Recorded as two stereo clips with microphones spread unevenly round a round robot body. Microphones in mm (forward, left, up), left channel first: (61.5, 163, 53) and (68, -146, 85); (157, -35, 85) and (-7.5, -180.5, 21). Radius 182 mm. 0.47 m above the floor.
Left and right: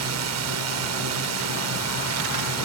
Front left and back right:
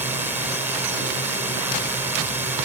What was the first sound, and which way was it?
A drone, 75° right.